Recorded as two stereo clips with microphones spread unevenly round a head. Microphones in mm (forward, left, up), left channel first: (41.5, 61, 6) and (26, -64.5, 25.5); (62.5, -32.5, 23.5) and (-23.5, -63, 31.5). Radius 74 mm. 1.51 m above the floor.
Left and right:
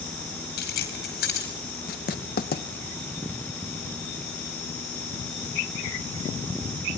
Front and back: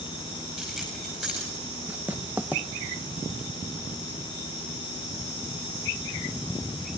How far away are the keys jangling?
About 4.5 m.